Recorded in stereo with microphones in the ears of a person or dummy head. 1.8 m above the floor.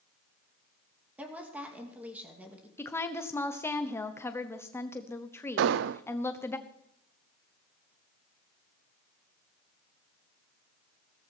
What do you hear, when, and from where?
1.2 s a woman speaking: 5° right (ahead or behind), 2.5 m
2.8 s a woman speaking: 10° left (ahead or behind), 0.9 m
5.6 s an explosion: 65° right (ahead or behind), 0.5 m